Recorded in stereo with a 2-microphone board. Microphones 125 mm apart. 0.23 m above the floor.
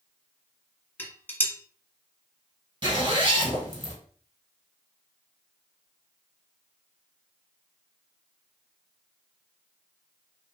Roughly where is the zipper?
Right.